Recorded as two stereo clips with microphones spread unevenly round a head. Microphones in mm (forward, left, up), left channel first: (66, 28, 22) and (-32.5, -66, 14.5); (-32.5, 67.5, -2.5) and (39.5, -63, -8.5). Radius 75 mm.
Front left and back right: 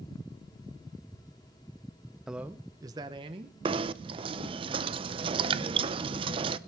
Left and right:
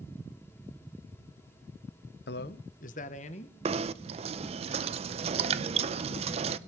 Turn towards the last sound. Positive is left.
turn(degrees=-95)